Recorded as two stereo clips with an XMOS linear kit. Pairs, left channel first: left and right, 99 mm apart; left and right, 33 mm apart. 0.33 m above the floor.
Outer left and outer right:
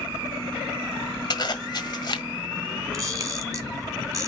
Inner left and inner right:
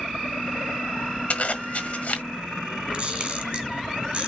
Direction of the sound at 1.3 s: 50° left (ahead or behind).